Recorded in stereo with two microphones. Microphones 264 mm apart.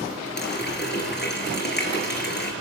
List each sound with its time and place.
0.4 s a running tap: 40° left (ahead or behind), 3.5 m